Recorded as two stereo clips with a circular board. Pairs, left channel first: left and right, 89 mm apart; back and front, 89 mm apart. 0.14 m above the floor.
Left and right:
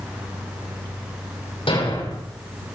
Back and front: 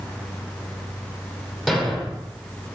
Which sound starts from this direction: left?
A thud, at 1.7 s.